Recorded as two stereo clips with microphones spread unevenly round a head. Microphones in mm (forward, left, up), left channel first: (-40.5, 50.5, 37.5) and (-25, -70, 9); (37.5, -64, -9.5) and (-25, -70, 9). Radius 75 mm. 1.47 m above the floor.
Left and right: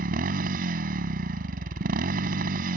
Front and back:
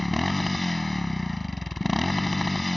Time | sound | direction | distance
0.0 | a motorcycle | 90° right | ?